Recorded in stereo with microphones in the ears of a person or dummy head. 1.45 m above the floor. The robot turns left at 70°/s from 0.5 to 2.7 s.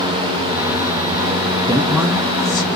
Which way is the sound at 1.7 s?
150° right.